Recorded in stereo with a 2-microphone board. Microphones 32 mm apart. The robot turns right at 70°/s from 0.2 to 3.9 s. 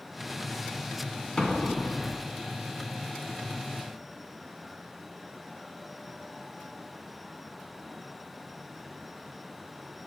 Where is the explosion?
25° left, 0.6 m; by 2.2 s 80° left, 0.6 m.